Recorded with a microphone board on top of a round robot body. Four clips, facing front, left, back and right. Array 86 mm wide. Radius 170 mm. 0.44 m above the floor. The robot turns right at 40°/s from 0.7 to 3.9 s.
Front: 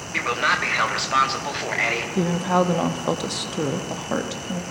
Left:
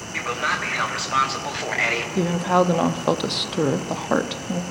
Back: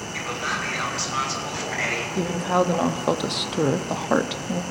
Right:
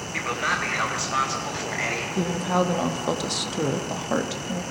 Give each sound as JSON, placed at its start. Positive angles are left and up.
{"t": 0.1, "sound": "a man speaking", "azimuth_deg": 10, "distance_m": 0.9}
{"t": 2.1, "sound": "a woman speaking", "azimuth_deg": 60, "distance_m": 0.7}